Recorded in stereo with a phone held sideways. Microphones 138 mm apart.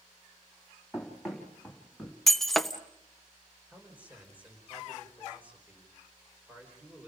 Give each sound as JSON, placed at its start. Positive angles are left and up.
{"t": 0.9, "sound": "running footsteps", "side_deg": 0, "distance_m": 4.0}
{"t": 2.3, "sound": "breaking glass", "side_deg": 0, "distance_m": 1.0}
{"t": 3.7, "sound": "a man speaking", "side_deg": -10, "distance_m": 5.0}